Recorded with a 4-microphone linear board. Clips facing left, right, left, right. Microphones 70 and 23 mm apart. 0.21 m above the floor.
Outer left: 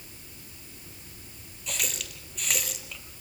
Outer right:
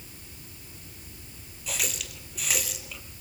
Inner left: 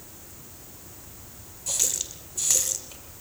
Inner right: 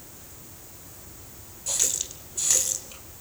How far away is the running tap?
About 3.5 m.